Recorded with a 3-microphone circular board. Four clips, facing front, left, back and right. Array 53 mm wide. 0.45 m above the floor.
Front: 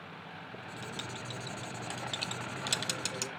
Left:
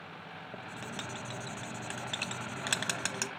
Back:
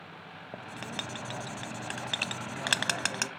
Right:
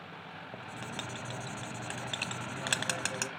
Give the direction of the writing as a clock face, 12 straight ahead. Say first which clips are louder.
Even, back 5 dB; 6 o'clock.